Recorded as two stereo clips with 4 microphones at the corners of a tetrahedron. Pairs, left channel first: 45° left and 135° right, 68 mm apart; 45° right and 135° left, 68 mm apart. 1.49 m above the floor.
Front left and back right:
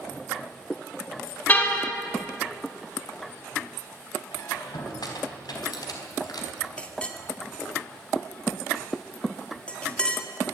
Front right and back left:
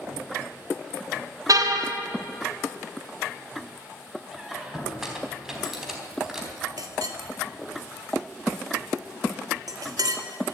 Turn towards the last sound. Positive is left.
turn(degrees=120)